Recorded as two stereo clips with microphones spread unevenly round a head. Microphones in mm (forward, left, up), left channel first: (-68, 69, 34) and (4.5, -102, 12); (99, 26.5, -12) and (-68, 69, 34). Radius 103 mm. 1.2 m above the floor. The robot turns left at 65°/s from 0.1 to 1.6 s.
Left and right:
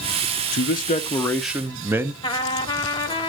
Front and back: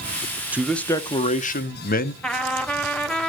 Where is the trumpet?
95° left, 0.8 m.